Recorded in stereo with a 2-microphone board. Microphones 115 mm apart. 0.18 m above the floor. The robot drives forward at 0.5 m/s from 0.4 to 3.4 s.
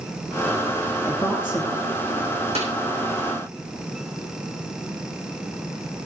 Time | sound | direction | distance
1.1 | a woman speaking | 5° right (ahead or behind) | 3.5 m
2.5 | a snare drum | 60° right (ahead or behind) | 7 m